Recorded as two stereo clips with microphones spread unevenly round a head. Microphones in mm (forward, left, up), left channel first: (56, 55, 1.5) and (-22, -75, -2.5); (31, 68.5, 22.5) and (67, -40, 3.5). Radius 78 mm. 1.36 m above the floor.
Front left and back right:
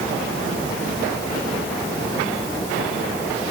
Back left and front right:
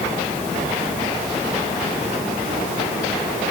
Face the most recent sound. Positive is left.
No sound to turn to.